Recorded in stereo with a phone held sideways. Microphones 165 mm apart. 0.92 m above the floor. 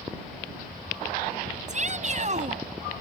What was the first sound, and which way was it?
A shout, 45° right (ahead or behind).